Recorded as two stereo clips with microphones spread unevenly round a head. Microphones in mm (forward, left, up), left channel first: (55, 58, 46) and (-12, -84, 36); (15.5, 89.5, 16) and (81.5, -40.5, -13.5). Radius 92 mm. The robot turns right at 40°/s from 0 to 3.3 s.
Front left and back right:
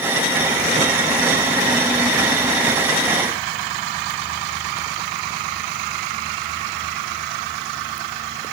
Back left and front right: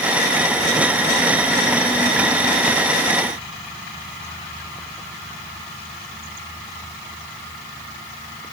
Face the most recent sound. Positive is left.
No sound to turn to.